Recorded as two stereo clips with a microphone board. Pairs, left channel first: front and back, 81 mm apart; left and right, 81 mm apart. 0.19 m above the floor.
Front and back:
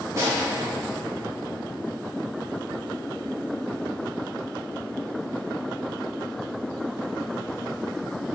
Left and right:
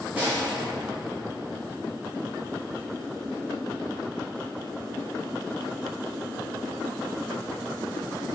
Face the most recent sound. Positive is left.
turn(degrees=-155)